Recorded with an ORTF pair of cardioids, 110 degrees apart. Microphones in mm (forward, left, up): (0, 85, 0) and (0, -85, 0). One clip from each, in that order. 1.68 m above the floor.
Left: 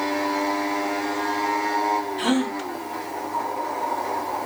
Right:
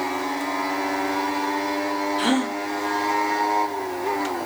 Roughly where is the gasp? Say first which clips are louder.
Right 1 dB; ahead.